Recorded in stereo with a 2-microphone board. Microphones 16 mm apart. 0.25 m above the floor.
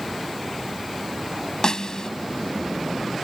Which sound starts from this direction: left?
A snare drum, at 1.6 s.